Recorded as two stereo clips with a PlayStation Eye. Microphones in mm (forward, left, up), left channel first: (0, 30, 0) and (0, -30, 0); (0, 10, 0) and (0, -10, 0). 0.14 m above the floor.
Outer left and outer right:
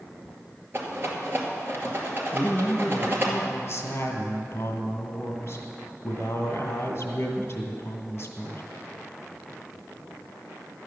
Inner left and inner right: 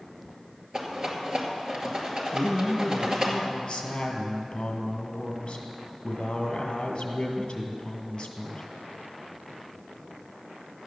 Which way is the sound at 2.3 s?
45° left (ahead or behind).